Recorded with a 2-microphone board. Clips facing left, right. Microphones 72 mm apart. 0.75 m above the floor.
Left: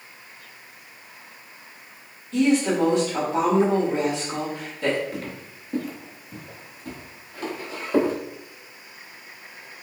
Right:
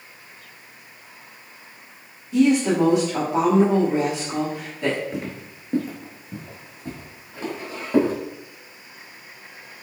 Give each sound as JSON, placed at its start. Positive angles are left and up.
{"t": 2.3, "sound": "a woman speaking", "side_deg": -15, "distance_m": 1.5}
{"t": 5.1, "sound": "footsteps", "side_deg": -25, "distance_m": 0.7}